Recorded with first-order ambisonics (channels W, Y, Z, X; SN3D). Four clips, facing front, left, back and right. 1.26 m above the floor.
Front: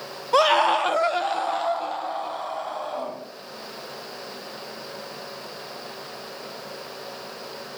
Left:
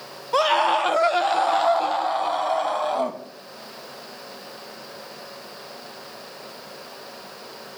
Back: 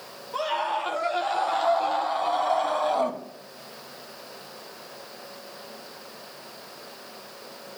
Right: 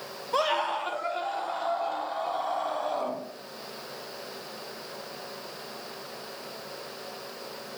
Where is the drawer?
No drawer in this recording.